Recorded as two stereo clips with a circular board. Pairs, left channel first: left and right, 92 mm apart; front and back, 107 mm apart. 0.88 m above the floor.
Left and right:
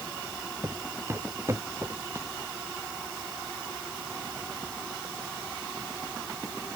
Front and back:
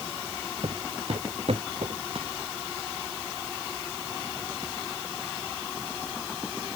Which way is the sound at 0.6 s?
155° right.